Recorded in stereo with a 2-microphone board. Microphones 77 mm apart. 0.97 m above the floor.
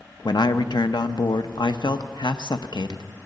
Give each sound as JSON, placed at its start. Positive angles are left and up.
{"t": 0.2, "sound": "a man speaking", "side_deg": 70, "distance_m": 0.6}